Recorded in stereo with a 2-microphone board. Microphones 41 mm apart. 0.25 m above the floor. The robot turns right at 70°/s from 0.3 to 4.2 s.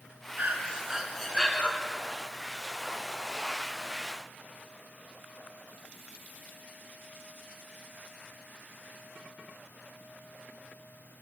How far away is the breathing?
About 0.9 m.